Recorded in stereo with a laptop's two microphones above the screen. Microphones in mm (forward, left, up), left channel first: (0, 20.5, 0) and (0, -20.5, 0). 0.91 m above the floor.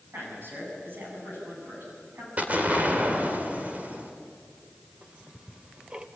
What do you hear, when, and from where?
0.1 s a man speaking: 60° right (ahead or behind), 9 m
2.4 s an explosion: 35° right (ahead or behind), 2.5 m
5.0 s ticking: 30° right (ahead or behind), 1.7 m